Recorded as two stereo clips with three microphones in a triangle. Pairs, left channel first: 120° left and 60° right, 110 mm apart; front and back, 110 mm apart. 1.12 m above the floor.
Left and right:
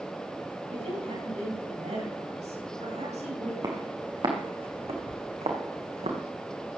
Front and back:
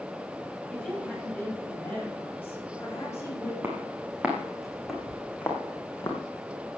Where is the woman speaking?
80° right, 7.5 m; by 3.5 s 60° right, 7.5 m.